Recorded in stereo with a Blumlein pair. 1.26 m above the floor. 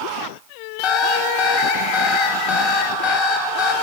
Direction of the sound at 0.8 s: 45° left.